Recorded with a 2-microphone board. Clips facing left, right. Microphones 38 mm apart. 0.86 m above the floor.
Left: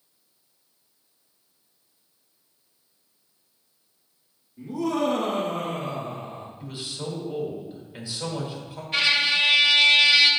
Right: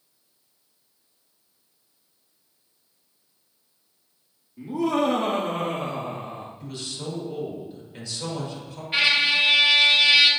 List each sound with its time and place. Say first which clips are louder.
4.6 s laughter: right 2 dB; 30° right (ahead or behind), 2 m; by 6.5 s 55° right (ahead or behind), 1.7 m
6.6 s a man speaking: left 2 dB; 20° left (ahead or behind), 2.5 m
8.9 s a trumpet: right 1 dB; 15° right (ahead or behind), 1.9 m